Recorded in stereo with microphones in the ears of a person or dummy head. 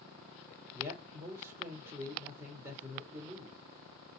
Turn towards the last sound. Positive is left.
turn(degrees=-25)  # may be behind; listen again after turning